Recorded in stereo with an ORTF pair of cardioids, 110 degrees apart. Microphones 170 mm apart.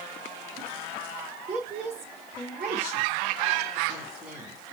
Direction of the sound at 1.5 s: 5° right.